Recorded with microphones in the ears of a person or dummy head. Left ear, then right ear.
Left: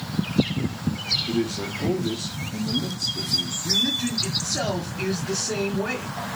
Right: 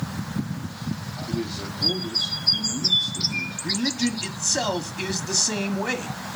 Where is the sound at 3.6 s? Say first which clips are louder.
Left 3 dB; 45° right (ahead or behind), 1.1 m.